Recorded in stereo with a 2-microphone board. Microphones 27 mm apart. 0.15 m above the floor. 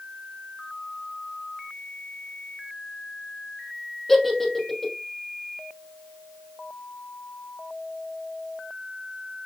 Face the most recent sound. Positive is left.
turn(degrees=10)  # may be behind; listen again after turning